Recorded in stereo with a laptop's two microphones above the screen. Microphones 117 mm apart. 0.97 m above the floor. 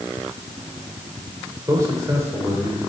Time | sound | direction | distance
1.7 | a man speaking | 25° right (ahead or behind) | 3.5 m